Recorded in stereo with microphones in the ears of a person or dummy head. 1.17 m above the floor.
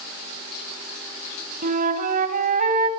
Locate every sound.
1.6 s a flute: 50° right (ahead or behind), 4.5 m